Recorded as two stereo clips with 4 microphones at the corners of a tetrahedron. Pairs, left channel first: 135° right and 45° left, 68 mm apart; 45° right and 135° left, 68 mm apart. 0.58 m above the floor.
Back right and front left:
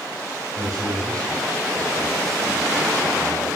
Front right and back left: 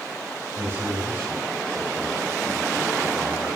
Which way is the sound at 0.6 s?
80° left.